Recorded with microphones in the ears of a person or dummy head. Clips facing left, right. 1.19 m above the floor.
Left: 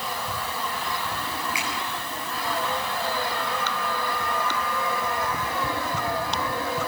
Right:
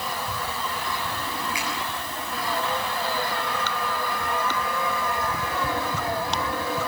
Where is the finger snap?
25° left (ahead or behind), 10 m.